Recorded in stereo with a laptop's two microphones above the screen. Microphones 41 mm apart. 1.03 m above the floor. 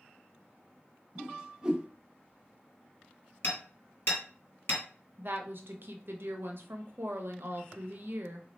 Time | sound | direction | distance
1.1 | a whoosh | 20° right (ahead or behind) | 0.6 m
3.4 | hammering | 65° left (ahead or behind) | 2.5 m
5.2 | a woman speaking | 60° right (ahead or behind) | 0.7 m